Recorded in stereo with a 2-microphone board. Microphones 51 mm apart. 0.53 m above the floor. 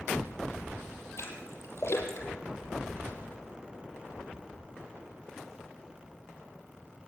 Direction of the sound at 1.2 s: 55° left (ahead or behind).